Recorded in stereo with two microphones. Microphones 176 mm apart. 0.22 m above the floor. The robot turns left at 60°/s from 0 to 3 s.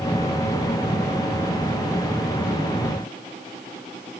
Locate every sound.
Only background noise.